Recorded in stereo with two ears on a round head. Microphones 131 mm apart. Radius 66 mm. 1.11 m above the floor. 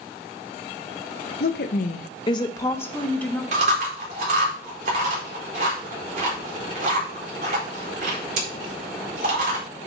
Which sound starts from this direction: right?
Chewing, at 3.5 s.